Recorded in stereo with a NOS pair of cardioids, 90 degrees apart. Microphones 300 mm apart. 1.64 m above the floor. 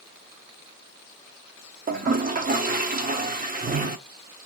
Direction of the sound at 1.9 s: 30° right.